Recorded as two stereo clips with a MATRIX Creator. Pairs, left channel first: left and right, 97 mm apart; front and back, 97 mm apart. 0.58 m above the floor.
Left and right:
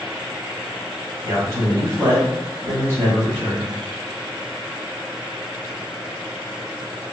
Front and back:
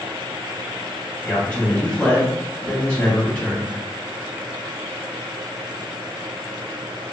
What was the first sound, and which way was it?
A man speaking, 60° right.